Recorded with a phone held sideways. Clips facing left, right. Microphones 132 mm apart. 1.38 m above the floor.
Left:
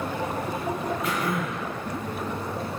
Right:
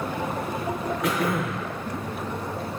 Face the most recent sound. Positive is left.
turn(degrees=-65)  # may be behind; listen again after turning